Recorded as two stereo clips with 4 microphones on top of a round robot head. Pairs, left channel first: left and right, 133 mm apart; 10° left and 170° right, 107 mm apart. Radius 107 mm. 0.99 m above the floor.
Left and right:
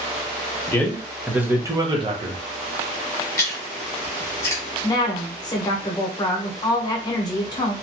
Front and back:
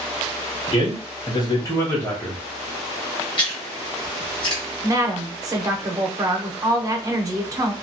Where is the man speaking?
25° left, 1.0 m; by 2.4 s 65° right, 1.1 m.